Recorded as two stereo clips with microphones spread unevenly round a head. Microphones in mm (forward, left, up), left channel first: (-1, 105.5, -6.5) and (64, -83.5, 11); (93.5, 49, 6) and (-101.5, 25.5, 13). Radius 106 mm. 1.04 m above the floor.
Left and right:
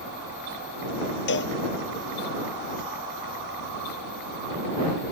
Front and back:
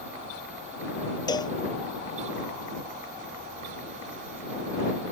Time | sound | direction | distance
1.3 | a cowbell | 75° left | ?